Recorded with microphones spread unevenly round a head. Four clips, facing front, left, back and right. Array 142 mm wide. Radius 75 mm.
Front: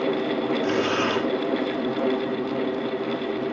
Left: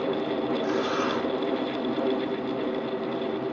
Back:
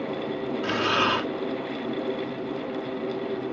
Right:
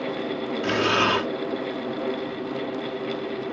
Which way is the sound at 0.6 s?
90° right.